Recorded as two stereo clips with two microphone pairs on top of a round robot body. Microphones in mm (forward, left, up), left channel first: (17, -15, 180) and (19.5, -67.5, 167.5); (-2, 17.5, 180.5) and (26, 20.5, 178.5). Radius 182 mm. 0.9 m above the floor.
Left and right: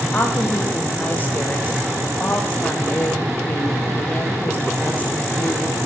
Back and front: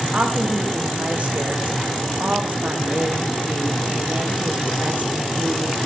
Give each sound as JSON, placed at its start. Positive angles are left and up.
{"t": 0.1, "sound": "a woman speaking", "azimuth_deg": 30, "distance_m": 1.6}